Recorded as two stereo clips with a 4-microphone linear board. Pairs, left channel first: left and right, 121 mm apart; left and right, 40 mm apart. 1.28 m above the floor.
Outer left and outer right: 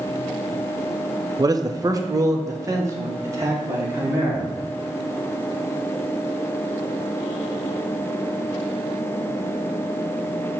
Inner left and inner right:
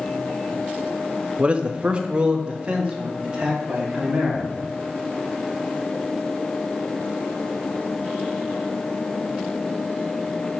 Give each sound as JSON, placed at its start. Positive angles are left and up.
{"t": 1.4, "sound": "a man speaking", "side_deg": -30, "distance_m": 0.6}